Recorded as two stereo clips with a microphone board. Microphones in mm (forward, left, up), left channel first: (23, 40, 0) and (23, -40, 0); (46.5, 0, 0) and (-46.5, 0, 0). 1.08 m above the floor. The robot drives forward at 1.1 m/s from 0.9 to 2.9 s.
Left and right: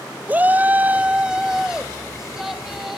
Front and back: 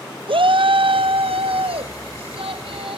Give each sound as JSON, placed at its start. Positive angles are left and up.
{"t": 0.3, "sound": "a shout", "azimuth_deg": -160, "distance_m": 0.5}